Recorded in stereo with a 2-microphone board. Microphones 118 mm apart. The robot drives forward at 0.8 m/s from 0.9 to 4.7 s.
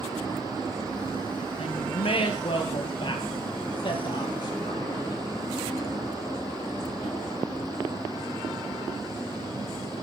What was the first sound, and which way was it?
A woman speaking, 60° left (ahead or behind).